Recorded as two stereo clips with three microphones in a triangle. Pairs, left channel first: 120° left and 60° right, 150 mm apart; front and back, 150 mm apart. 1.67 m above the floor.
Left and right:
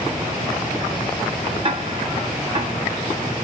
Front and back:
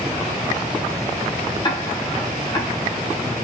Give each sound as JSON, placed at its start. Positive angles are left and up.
{"t": 1.6, "sound": "ticking", "azimuth_deg": -45, "distance_m": 0.8}